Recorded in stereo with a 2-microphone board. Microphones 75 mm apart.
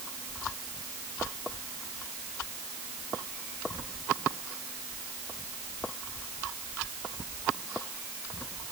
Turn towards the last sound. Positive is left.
No sound to turn to.